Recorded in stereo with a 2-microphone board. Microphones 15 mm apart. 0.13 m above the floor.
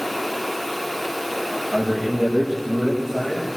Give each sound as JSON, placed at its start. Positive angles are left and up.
{"t": 1.7, "sound": "a man speaking", "side_deg": -35, "distance_m": 7.5}